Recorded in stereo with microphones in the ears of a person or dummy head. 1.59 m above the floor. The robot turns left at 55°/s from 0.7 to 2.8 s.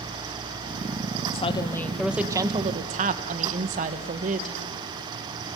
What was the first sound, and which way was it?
A woman speaking, 35° left.